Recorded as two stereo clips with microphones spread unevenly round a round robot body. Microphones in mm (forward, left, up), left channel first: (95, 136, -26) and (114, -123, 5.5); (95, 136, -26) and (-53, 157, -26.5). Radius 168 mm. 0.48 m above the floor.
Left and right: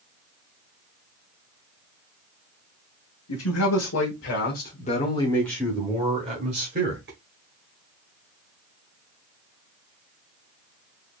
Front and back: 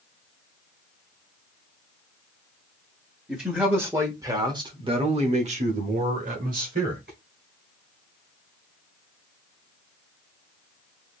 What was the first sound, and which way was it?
A man speaking, 90° left.